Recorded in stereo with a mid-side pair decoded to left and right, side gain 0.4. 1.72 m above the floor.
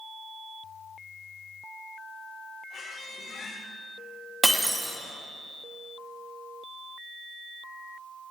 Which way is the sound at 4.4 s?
10° right.